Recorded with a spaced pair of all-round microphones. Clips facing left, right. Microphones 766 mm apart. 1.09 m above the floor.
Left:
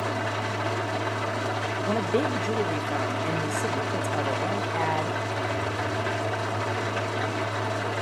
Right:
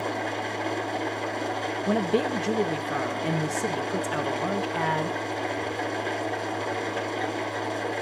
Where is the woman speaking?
45° right (ahead or behind), 1.4 m.